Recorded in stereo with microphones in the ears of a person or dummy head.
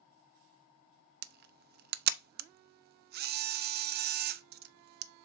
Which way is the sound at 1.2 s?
45° right (ahead or behind).